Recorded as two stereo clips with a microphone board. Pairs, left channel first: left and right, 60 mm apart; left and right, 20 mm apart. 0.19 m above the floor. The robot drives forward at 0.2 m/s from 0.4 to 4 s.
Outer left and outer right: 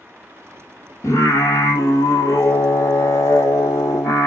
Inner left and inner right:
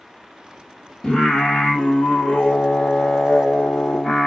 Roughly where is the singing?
Left.